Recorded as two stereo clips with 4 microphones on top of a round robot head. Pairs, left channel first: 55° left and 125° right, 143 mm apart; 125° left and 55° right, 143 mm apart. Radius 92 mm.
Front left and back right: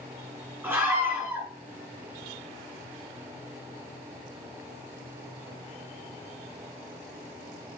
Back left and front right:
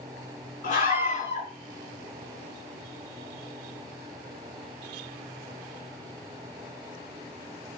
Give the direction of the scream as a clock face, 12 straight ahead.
7 o'clock.